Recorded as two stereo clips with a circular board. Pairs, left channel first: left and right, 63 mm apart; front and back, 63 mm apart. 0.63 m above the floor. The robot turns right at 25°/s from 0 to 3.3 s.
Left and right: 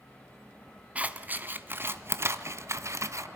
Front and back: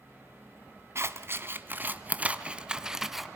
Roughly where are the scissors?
Behind right.